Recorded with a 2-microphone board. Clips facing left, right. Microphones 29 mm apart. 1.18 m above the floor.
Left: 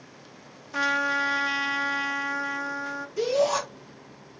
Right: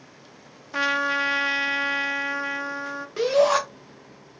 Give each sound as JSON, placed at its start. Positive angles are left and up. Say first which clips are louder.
{"t": 0.7, "sound": "a trumpet", "louder": "right 1 dB", "side_deg": -15, "distance_m": 0.5}
{"t": 3.2, "sound": "a shout", "louder": "right 4 dB", "side_deg": -65, "distance_m": 1.1}